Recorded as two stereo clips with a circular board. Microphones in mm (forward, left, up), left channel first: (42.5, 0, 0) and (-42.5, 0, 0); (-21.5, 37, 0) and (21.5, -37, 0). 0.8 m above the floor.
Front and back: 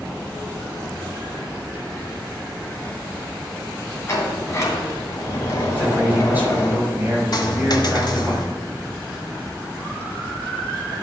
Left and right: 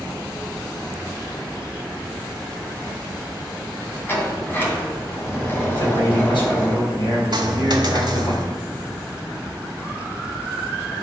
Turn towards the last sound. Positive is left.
turn(degrees=-30)